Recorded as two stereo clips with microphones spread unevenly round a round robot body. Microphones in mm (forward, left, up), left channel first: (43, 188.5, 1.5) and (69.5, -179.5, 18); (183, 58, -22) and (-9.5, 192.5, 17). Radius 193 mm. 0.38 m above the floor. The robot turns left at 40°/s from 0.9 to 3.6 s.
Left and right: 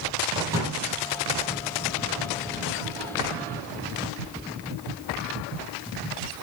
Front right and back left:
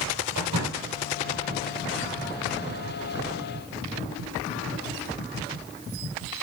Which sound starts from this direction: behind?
A door slam, at 0.3 s.